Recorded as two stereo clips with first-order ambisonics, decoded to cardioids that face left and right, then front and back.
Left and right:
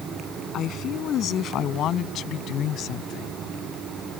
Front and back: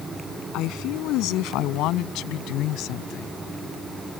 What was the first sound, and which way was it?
A woman speaking, 35° left.